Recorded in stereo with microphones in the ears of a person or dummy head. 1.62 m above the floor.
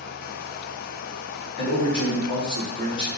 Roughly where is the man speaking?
Left.